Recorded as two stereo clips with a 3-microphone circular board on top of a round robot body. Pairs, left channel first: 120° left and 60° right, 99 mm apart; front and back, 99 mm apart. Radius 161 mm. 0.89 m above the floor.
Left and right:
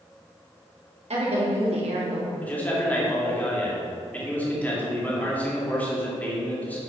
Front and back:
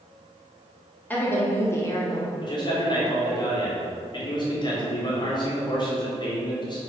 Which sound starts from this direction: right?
A woman speaking, at 1.1 s.